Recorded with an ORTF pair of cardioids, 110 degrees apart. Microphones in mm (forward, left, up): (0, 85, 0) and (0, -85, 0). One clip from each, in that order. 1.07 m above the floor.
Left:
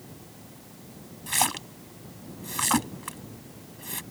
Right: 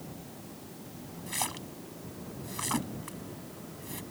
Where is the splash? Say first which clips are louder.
Left 9 dB; 50° left.